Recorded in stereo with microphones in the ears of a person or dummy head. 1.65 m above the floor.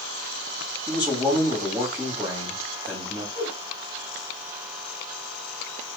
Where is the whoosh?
20° left (ahead or behind), 4 m.